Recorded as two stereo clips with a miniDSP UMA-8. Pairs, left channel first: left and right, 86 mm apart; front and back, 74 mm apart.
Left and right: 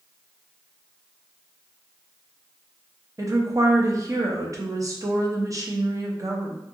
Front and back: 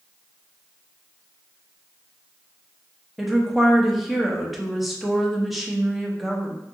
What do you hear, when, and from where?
3.2 s a woman speaking: 90° right, 0.5 m